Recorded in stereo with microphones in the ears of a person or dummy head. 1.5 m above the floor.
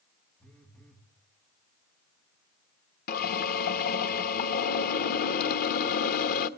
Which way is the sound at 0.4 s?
5° left (ahead or behind).